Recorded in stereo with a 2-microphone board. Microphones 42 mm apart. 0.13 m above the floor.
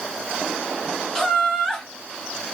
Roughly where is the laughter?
Centre.